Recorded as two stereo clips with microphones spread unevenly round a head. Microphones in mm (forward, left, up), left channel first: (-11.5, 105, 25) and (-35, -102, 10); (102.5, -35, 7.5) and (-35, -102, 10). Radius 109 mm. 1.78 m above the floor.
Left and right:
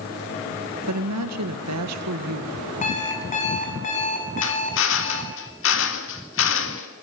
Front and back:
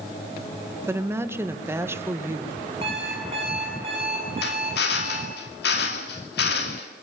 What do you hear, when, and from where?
0.9 s a woman speaking: 80° right, 2.5 m
2.8 s an alarm clock: 140° left, 7.5 m
4.4 s a drill: 55° left, 2.5 m